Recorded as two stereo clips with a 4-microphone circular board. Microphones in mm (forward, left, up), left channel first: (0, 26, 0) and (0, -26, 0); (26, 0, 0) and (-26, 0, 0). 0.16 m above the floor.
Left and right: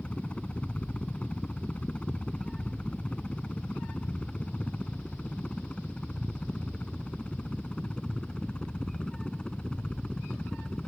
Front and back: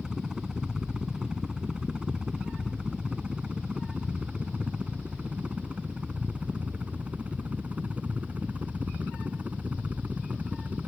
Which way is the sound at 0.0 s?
125° left.